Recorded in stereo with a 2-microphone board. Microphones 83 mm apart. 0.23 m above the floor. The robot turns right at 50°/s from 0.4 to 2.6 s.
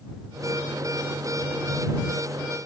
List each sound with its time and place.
Only background noise.